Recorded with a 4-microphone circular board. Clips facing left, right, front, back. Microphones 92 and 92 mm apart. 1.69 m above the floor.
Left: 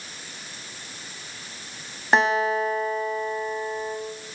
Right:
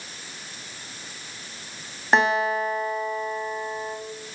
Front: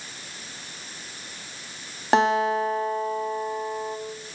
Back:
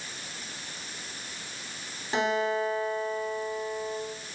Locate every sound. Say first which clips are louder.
2.1 s a guitar: even, front 7 dB; straight ahead, 3 m